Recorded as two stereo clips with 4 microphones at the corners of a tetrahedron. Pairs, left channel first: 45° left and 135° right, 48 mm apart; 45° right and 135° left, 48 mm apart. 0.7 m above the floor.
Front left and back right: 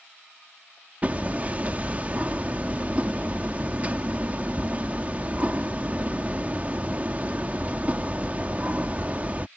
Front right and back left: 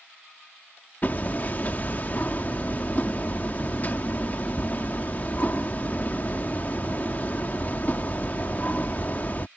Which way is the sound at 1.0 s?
85° right.